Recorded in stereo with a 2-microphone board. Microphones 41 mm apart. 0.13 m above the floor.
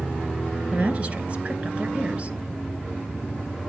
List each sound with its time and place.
0.7 s a woman speaking: 35° right (ahead or behind), 1.7 m